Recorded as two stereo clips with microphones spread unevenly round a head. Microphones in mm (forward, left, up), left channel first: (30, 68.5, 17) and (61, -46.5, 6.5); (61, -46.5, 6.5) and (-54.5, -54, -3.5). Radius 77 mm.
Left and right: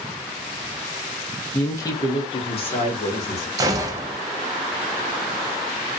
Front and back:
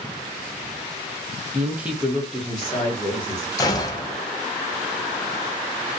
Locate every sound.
1.5 s a woman speaking: straight behind, 0.6 m; by 3.5 s 90° left, 1.2 m
3.6 s a gunshot: 45° right, 0.5 m